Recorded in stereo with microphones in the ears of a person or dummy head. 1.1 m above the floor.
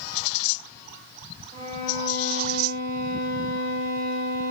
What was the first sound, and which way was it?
A violin, 50° right (ahead or behind).